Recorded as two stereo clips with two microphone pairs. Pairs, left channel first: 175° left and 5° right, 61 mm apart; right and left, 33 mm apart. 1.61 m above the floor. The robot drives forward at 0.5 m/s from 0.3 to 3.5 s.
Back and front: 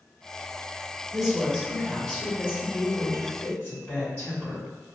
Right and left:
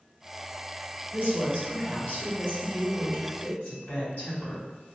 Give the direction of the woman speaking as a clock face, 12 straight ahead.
3 o'clock.